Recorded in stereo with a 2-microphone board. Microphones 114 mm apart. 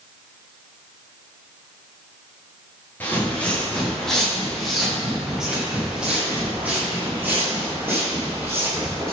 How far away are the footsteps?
About 4 m.